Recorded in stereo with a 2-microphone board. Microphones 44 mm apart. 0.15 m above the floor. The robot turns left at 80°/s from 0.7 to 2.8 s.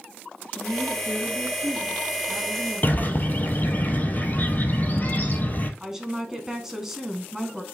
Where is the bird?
40° left (ahead or behind), 0.8 m.